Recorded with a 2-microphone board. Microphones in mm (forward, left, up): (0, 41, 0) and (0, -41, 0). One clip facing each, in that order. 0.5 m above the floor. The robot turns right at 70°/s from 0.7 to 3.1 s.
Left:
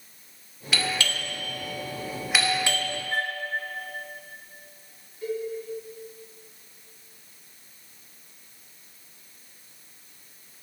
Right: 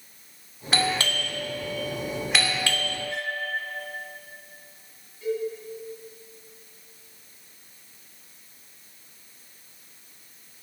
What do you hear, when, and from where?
0.7 s a doorbell: 40° right (ahead or behind), 2 m; by 2.9 s 30° left (ahead or behind), 2 m
3.1 s a flute: 40° left (ahead or behind), 0.6 m
5.2 s a cowbell: 40° left (ahead or behind), 5 m